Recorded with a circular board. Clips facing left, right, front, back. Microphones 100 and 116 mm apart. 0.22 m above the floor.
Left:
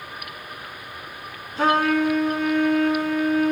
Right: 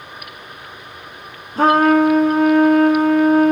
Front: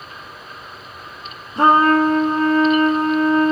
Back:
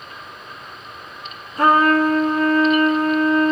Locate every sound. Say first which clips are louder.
1.6 s a trumpet: right 7 dB, front 2 dB; 55° right, 0.7 m